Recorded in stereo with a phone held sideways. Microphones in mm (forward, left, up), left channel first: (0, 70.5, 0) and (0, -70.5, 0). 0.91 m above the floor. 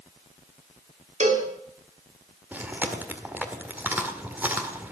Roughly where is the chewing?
Centre.